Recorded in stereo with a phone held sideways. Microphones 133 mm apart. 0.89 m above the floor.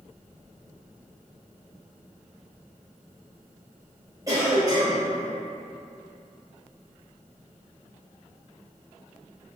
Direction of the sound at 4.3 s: 25° right (ahead or behind).